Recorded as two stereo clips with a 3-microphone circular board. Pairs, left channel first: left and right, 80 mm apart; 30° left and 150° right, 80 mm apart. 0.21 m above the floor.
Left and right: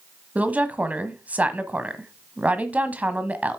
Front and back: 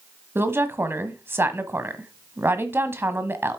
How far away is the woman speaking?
About 1.2 m.